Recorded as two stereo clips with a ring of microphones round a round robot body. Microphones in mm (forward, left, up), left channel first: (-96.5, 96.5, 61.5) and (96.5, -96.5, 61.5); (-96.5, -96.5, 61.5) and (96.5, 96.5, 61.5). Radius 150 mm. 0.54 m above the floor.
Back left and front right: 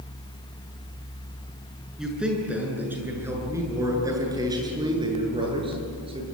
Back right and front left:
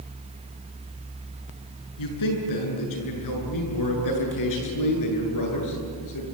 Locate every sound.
2.0 s a man speaking: 135° right, 7.5 m; by 6.2 s 115° right, 9.5 m